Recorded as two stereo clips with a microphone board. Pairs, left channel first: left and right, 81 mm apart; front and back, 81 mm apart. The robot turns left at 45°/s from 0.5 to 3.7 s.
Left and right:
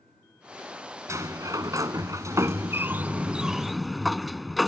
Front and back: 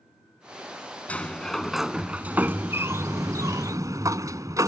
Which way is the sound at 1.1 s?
65° right.